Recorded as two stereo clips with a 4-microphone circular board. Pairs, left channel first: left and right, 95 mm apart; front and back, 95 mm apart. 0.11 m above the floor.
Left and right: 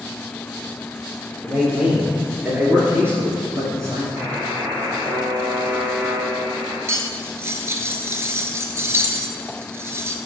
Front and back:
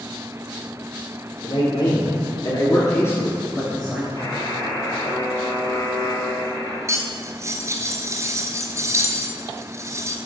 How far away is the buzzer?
About 3 m.